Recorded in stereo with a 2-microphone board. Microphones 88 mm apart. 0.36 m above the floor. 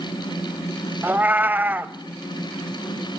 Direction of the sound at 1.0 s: 20° right (ahead or behind).